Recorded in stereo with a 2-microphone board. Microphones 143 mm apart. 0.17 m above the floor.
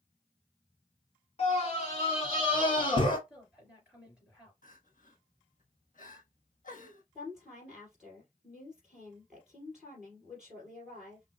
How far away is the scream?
About 1.5 m.